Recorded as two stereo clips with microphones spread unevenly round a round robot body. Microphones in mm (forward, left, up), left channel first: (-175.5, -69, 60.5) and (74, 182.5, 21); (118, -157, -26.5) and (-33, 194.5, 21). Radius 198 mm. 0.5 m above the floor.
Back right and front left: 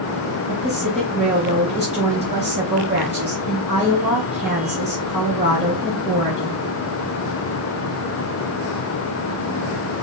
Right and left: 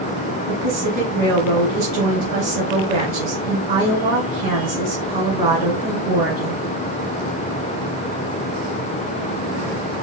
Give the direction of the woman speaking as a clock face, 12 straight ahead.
8 o'clock.